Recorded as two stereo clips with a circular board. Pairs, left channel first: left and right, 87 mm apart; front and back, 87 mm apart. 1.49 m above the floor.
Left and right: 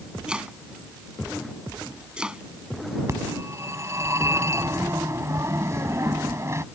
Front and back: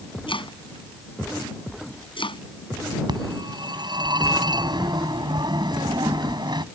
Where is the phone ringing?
145° right.